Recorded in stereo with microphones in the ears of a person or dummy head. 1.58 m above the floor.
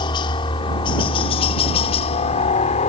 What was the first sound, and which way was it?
A helicopter, 25° left (ahead or behind).